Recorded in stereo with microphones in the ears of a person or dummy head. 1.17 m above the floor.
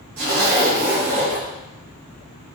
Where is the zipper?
50° right (ahead or behind), 1.6 m.